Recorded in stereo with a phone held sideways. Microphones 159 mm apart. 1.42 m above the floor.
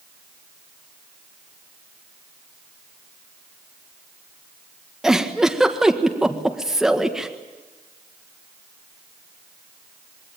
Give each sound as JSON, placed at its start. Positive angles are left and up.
{"t": 5.0, "sound": "a giggle", "side_deg": -5, "distance_m": 1.7}